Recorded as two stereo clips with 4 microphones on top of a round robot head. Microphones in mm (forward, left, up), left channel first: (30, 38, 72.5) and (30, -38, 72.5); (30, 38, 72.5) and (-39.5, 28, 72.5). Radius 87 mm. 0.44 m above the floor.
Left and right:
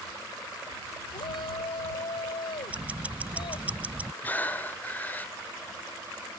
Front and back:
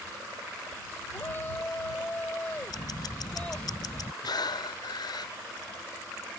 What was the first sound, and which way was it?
A shout, 70° left.